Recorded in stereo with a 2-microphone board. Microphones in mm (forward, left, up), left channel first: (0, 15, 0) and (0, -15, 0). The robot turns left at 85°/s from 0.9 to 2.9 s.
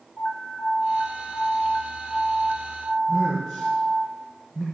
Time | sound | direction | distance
0.2 | an alarm | 165° left | 3 m
3.1 | a man speaking | 35° left (ahead or behind) | 4 m